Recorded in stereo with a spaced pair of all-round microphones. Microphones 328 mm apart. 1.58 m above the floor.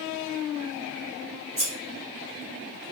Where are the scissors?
50° right (ahead or behind), 1.7 m.